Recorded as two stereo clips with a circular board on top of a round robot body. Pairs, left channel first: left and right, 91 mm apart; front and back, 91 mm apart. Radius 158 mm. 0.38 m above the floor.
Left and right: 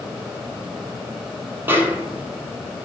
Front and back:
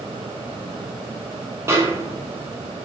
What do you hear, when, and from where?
1.7 s a snare drum: 140° right, 0.9 m